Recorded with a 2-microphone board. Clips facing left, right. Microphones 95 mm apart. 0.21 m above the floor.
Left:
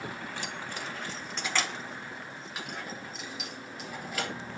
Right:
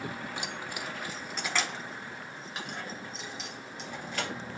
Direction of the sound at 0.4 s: 15° right (ahead or behind).